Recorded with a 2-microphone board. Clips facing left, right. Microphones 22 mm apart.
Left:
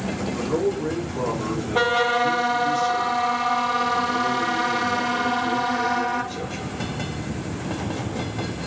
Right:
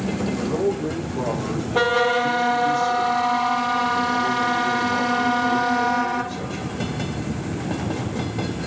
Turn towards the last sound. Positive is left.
turn(degrees=30)  # may be behind; listen again after turning